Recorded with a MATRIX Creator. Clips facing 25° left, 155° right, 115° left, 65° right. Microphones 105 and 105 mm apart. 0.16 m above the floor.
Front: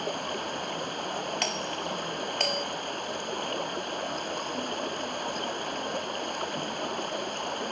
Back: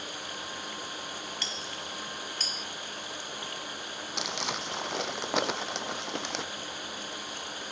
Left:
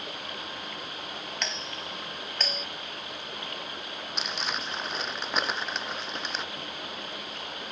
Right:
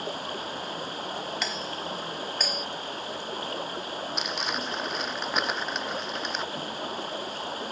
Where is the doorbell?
15° left.